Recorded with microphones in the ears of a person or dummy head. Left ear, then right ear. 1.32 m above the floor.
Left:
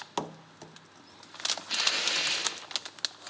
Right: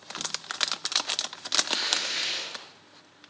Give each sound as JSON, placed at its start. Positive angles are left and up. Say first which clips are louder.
{"t": 1.7, "sound": "tearing paper", "louder": "even", "side_deg": -25, "distance_m": 8.0}